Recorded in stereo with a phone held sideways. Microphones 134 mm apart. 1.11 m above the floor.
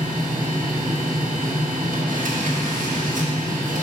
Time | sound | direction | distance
0.0 | a machine running | 85° right | 0.9 m